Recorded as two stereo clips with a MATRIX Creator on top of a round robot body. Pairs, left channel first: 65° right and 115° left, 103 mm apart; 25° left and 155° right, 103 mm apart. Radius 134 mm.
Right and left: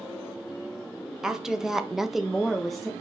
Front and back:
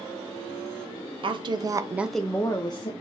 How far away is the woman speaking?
About 0.8 m.